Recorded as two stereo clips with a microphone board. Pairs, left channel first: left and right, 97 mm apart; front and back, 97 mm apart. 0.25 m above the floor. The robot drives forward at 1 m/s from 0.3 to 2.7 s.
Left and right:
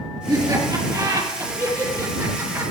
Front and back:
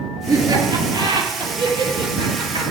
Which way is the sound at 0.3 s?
140° right.